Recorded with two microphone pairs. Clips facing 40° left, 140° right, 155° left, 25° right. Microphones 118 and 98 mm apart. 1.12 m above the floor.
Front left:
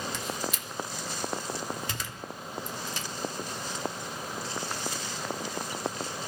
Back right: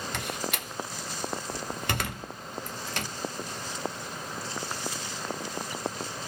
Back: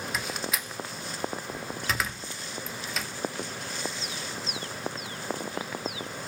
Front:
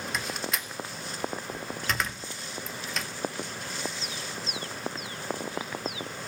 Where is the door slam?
120° right, 0.6 m.